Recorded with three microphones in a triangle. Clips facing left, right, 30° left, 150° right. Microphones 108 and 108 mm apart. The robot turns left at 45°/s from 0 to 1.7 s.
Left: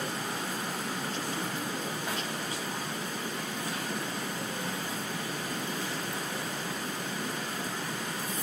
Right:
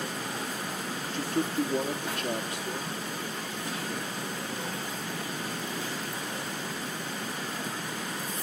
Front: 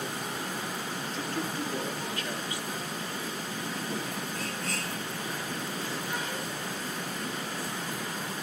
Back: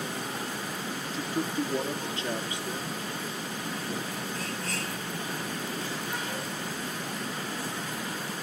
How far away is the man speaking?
About 1.7 m.